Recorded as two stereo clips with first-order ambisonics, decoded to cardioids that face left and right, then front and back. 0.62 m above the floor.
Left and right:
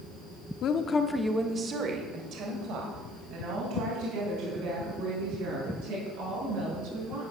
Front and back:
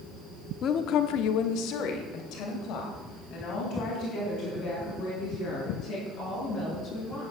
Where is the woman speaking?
50° left, 1.2 m; by 7.2 s 55° right, 10 m.